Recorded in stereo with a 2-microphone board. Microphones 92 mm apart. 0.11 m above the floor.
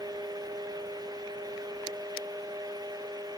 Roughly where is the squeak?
No squeak in this recording.